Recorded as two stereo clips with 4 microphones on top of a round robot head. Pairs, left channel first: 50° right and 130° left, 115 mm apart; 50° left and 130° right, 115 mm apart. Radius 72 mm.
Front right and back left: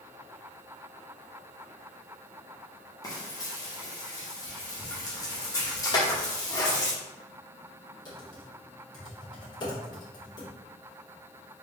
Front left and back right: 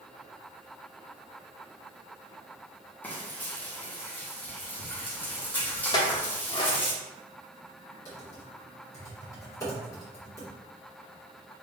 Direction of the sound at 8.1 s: 5° right.